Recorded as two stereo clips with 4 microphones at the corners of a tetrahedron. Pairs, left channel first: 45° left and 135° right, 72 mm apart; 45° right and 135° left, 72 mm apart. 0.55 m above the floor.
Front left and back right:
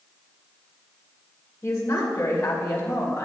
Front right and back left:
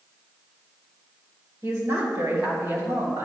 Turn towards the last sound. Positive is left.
turn(degrees=100)